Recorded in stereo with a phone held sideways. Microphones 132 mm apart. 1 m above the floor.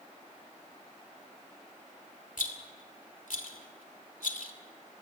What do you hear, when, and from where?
2.4 s a rattle: 85° left, 2.5 m